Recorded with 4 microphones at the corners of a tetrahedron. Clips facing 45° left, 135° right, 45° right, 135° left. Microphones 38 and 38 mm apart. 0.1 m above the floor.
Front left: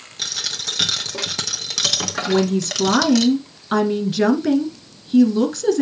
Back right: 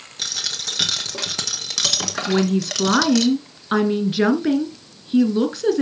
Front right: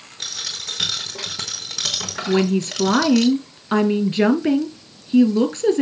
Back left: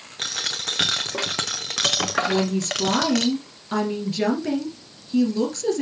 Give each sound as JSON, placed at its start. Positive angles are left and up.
{"t": 0.2, "sound": "a dropped coin", "azimuth_deg": 135, "distance_m": 1.1}
{"t": 2.3, "sound": "a woman speaking", "azimuth_deg": -65, "distance_m": 1.2}